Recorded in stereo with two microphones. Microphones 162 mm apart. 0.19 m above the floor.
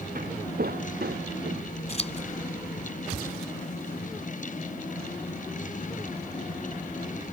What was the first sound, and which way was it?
Footsteps, 60° right (ahead or behind).